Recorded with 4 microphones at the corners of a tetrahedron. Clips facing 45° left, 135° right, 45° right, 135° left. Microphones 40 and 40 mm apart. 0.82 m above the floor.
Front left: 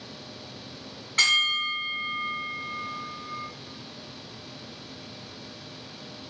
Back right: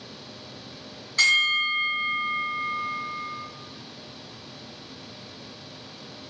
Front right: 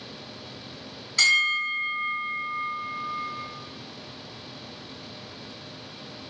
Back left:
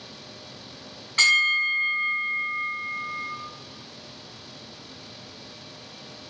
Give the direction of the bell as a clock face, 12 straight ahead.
9 o'clock.